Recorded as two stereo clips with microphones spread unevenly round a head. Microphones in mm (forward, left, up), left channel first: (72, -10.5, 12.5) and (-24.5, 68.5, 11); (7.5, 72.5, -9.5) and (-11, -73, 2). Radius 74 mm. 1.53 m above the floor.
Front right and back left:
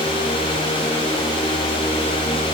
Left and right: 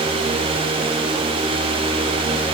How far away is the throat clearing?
I don't hear throat clearing.